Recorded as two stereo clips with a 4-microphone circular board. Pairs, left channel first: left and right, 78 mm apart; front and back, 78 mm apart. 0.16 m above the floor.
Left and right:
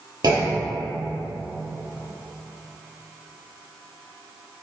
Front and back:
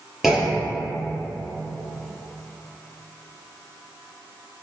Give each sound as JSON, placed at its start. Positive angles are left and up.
{"t": 0.2, "sound": "a clunk", "azimuth_deg": -90, "distance_m": 1.2}